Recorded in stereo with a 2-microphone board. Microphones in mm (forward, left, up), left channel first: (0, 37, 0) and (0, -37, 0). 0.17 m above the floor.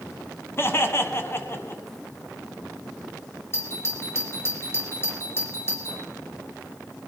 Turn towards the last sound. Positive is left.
turn(degrees=35)  # may be behind; listen again after turning